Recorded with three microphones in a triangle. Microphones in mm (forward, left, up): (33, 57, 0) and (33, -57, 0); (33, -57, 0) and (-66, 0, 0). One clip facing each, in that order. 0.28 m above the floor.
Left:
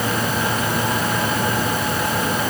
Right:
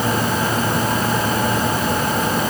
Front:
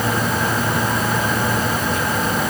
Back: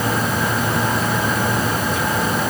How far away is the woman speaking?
I don't hear a woman speaking.